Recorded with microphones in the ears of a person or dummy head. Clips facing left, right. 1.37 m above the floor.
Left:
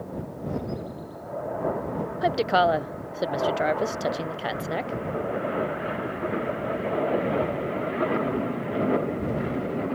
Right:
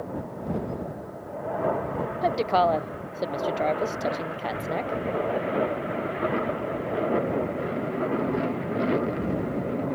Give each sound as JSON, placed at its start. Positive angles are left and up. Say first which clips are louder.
{"t": 2.2, "sound": "a woman speaking", "louder": "left 1 dB", "side_deg": 10}